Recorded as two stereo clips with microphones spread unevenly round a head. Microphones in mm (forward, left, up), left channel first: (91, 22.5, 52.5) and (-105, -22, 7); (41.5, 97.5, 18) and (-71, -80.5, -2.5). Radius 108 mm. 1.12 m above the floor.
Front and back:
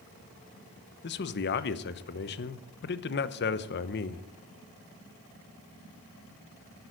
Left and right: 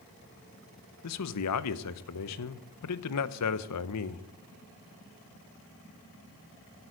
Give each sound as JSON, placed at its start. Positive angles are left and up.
{"t": 1.0, "sound": "a man speaking", "azimuth_deg": 55, "distance_m": 0.7}